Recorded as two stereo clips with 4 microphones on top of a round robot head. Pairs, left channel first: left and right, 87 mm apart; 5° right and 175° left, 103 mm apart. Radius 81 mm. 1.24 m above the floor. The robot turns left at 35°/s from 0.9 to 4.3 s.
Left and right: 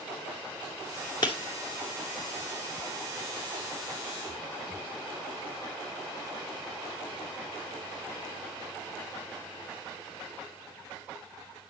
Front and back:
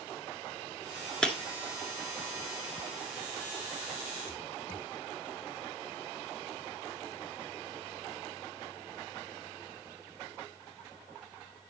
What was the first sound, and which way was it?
Breaking glass, 75° left.